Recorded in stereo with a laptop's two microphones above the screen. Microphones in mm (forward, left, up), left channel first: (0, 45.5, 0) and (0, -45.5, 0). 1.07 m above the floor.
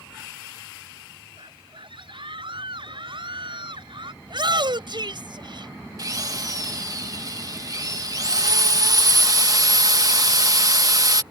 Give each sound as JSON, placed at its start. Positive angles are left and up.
{"t": 1.4, "sound": "a scream", "side_deg": -65}
{"t": 4.2, "sound": "a shout", "side_deg": -60}
{"t": 6.0, "sound": "a drill", "side_deg": -40}